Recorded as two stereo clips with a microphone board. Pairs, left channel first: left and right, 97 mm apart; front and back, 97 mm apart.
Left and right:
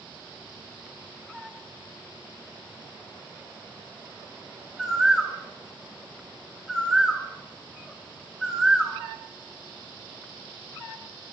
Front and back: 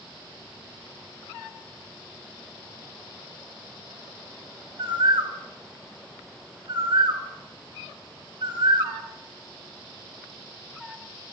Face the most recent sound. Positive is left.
turn(degrees=-170)